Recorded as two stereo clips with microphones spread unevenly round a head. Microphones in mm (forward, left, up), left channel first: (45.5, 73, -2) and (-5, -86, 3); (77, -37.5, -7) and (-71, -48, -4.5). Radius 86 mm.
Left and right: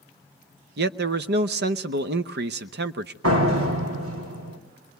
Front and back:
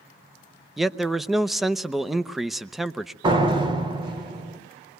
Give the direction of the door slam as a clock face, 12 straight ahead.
4 o'clock.